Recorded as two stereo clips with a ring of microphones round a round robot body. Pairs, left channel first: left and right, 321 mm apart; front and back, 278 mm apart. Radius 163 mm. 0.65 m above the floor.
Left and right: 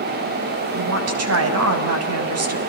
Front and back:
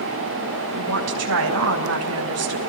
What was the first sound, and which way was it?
A woman speaking, 135° right.